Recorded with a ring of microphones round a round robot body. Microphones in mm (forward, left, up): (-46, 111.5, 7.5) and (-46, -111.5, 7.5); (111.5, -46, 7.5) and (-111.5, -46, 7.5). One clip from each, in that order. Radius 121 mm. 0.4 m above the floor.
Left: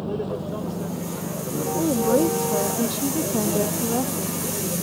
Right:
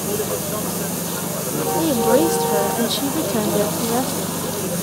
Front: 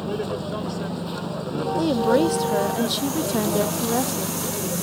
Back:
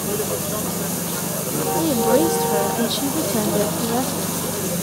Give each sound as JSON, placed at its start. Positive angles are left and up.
{"t": 0.0, "sound": "a vehicle", "azimuth_deg": -95}
{"t": 1.8, "sound": "a woman speaking", "azimuth_deg": -80}